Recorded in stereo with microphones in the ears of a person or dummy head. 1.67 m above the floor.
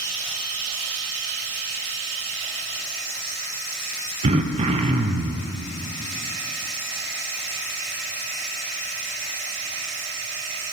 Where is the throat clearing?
40° right (ahead or behind), 0.8 m.